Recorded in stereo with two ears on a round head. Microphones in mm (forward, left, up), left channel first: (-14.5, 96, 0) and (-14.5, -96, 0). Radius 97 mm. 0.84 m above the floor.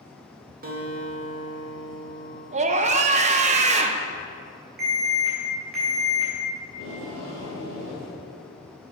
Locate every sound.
0.6 s a guitar: 45° right (ahead or behind), 1.5 m
2.5 s a scream: 35° right (ahead or behind), 0.6 m
4.8 s an alarm: 45° right (ahead or behind), 3.5 m
6.7 s tape being pulled: 60° right (ahead or behind), 3 m